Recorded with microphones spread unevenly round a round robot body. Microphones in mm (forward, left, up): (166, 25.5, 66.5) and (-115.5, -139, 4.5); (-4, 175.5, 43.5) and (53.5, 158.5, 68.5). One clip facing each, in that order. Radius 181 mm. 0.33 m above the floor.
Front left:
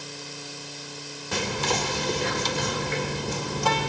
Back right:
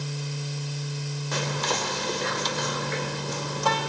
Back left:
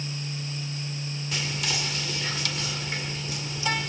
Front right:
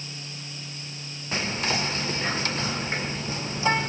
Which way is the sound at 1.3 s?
50° left.